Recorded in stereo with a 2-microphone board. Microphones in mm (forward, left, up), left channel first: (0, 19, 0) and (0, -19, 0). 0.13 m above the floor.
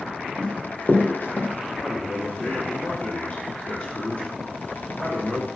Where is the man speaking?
15° left (ahead or behind), 2.5 m.